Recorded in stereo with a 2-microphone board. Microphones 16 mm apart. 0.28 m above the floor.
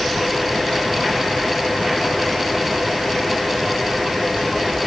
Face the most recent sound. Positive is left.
No sound to turn to.